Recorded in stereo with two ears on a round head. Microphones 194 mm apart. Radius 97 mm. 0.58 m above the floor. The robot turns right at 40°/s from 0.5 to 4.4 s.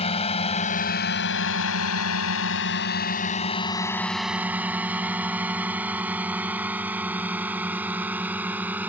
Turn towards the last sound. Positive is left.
turn(degrees=-10)  # may be behind; listen again after turning